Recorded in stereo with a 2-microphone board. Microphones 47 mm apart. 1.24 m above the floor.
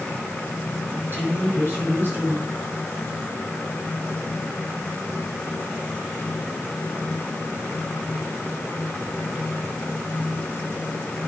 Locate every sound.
0.9 s a woman speaking: 45° right (ahead or behind), 7 m